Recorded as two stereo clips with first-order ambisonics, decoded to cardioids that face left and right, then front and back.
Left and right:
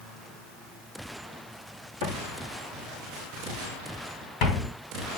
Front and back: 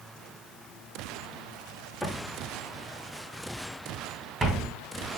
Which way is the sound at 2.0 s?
90° left.